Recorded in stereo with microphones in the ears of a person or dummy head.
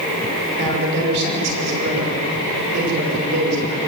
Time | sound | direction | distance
0.6 | a man speaking | 60° right (ahead or behind) | 6.5 m